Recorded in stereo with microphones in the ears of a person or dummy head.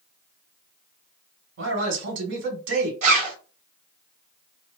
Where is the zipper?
40° right (ahead or behind), 1.3 m.